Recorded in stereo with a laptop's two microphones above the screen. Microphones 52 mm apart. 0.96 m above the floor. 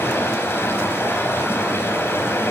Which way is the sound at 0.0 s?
55° left (ahead or behind).